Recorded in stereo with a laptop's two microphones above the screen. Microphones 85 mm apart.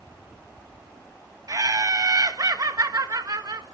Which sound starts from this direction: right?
Laughter, at 1.5 s.